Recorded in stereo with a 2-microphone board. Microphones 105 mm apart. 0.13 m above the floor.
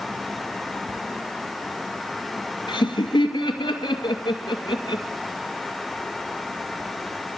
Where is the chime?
I don't hear a chime.